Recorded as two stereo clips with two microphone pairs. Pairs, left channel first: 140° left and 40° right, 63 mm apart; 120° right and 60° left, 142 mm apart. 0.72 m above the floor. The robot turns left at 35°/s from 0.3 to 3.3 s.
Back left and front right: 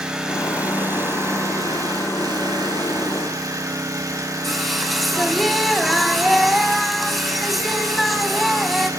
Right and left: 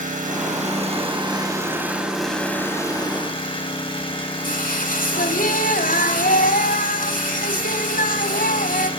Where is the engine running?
35° left, 4.5 m; by 9.0 s 70° right, 4.5 m.